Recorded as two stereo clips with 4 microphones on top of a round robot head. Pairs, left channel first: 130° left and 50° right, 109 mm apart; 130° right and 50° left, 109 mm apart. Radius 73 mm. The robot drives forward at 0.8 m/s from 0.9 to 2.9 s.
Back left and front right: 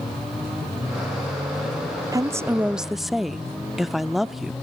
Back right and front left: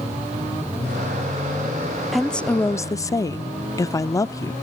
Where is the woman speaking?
35° right, 0.8 m; by 4.5 s 135° right, 0.8 m.